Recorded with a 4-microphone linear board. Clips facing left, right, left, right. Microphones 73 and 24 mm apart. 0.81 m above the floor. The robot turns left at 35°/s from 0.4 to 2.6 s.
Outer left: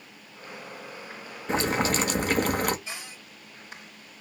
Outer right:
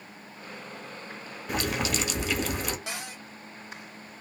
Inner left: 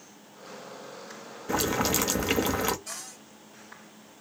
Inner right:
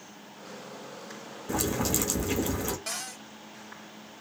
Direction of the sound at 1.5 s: 145° left.